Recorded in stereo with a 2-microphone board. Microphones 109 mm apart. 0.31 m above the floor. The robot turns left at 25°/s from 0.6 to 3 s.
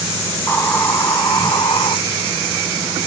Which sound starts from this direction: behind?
A hiss, at 0.3 s.